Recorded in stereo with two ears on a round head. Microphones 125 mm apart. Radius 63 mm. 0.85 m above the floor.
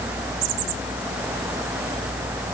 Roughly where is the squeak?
I don't hear a squeak.